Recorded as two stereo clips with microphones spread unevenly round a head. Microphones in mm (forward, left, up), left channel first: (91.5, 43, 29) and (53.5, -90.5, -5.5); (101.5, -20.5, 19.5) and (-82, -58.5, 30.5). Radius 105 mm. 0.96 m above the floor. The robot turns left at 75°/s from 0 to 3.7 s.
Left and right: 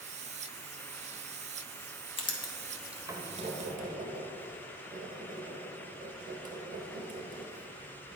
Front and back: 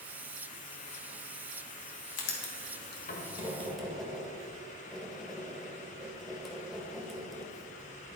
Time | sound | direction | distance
2.2 | writing | 35° left | 1.4 m